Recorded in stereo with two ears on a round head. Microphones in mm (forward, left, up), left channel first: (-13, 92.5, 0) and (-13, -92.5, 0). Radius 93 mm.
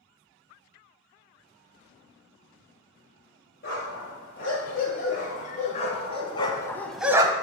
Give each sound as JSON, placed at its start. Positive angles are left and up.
{"t": 3.6, "sound": "a dog barking", "side_deg": 45, "distance_m": 4.0}